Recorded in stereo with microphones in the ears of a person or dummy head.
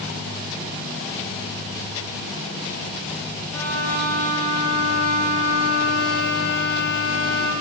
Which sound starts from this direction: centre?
A violin, at 3.5 s.